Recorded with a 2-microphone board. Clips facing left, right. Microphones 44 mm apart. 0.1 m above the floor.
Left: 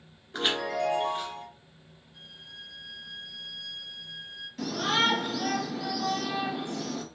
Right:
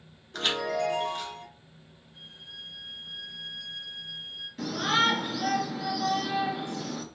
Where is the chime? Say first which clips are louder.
Even; 20° left (ahead or behind), 1.1 m.